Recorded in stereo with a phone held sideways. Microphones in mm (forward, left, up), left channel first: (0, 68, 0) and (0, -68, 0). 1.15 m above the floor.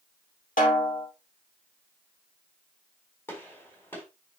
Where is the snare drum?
70° left (ahead or behind), 2.5 m.